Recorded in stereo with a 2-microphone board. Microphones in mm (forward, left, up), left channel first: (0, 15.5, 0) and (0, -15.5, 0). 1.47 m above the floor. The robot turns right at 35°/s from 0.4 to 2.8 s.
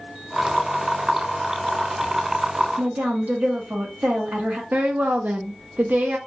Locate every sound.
2.8 s a woman speaking: 70° right (ahead or behind), 1.6 m
4.7 s a woman speaking: 75° right (ahead or behind), 0.7 m